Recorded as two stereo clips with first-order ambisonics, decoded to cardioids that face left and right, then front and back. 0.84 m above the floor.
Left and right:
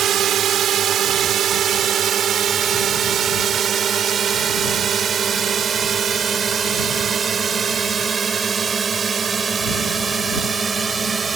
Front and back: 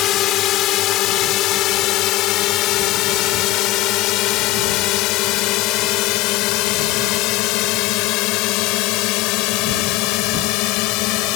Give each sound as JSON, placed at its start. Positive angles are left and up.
{"t": 0.0, "sound": "a drone", "azimuth_deg": -40}